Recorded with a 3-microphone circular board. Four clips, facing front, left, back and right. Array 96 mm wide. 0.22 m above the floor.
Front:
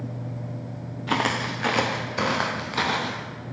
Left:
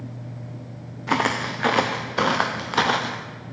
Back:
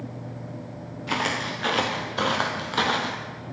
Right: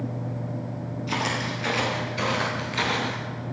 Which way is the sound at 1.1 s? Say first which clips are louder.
Left 6 dB, front 2 dB; 70° left.